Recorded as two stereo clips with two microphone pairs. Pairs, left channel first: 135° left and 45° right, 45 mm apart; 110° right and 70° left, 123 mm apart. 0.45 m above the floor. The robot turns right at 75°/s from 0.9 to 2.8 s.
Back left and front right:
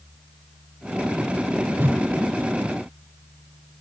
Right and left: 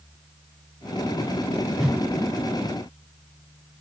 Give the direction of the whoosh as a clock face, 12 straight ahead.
1 o'clock.